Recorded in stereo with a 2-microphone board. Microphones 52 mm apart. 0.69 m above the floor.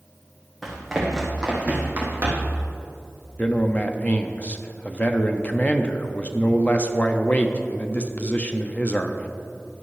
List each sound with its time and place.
0.6 s running footsteps: centre (ahead or behind), 2 m; by 2.6 s 45° right (ahead or behind), 2 m
3.4 s a man speaking: 30° left (ahead or behind), 0.6 m